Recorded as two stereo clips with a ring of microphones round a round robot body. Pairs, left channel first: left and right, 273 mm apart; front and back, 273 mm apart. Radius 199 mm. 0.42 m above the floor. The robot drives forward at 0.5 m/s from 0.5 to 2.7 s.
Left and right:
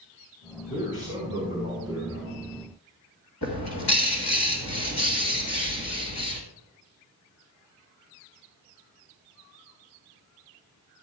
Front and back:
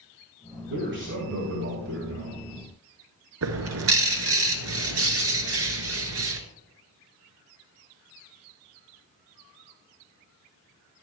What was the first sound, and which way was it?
A man speaking, 140° left.